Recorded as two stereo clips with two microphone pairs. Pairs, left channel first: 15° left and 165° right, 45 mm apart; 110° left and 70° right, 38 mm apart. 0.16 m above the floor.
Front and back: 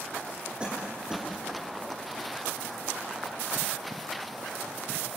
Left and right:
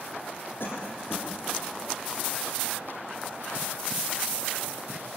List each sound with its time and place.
0.6 s a cough: 125° left, 6.5 m